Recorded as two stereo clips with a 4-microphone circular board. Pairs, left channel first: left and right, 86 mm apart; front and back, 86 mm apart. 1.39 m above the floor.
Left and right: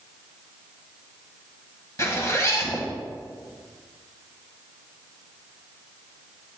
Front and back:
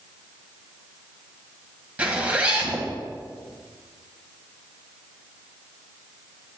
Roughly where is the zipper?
Behind left.